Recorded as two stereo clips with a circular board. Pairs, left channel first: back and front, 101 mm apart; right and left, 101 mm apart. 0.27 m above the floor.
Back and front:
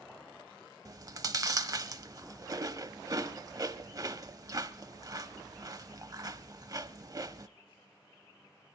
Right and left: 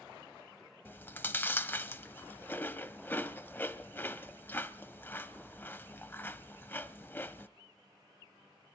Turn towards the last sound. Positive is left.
turn(degrees=-30)